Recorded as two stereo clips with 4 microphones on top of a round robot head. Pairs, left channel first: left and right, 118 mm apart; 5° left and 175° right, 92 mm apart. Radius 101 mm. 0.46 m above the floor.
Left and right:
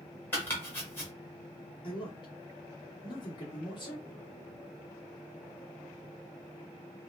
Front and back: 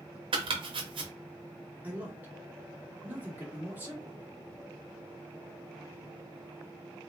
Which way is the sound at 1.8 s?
120° left.